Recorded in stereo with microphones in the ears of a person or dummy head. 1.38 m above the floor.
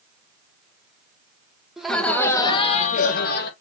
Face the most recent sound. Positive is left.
turn(degrees=65)  # may be behind; listen again after turning